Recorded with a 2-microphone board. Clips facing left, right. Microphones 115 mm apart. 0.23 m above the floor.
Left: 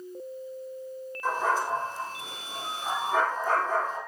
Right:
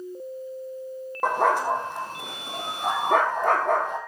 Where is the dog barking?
65° right (ahead or behind), 4 m.